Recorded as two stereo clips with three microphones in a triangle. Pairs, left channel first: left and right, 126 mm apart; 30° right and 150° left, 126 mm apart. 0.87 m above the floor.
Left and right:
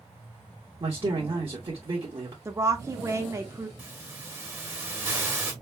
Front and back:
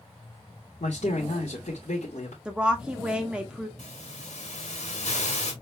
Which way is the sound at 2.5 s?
130° right.